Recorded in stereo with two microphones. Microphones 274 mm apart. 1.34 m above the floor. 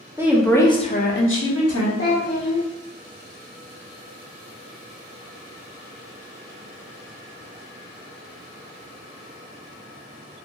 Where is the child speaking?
40° left (ahead or behind), 0.6 m.